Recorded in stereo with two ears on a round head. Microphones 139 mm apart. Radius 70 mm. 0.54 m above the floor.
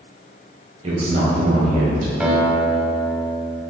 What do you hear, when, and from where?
0.8 s a man speaking: 40° right (ahead or behind), 1.8 m; by 2.1 s 60° right (ahead or behind), 2.5 m
2.2 s a guitar: 10° right (ahead or behind), 1.1 m